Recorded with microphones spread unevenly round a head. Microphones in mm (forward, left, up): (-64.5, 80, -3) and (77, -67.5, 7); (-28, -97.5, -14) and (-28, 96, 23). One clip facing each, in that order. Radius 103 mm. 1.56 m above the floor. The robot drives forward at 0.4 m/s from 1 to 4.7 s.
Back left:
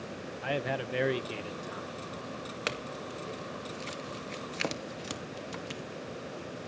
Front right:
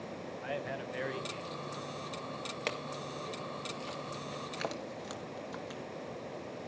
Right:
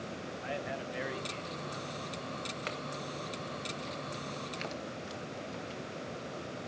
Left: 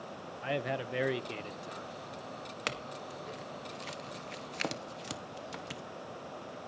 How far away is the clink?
About 1.7 m.